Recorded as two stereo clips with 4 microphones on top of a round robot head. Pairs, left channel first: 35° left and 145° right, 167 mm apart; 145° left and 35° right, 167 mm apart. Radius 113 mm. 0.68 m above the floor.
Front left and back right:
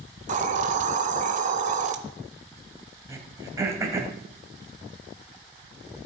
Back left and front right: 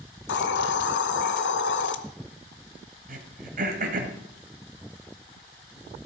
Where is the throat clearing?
75° right, 1.6 m.